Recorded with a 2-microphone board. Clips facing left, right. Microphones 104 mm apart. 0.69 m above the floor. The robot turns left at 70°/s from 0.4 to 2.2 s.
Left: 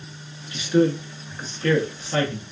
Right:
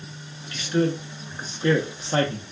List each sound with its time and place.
0.5 s a man speaking: 20° left (ahead or behind), 0.6 m; by 2.4 s 30° right (ahead or behind), 0.6 m